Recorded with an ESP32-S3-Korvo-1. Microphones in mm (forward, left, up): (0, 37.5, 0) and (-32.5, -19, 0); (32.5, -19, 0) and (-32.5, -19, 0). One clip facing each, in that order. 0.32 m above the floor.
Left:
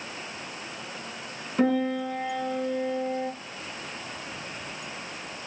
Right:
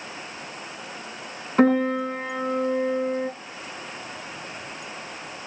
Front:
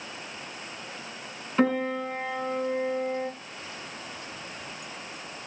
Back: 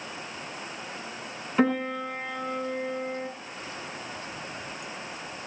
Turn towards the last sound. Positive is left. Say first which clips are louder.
# right 5 dB, even
turn(degrees=-95)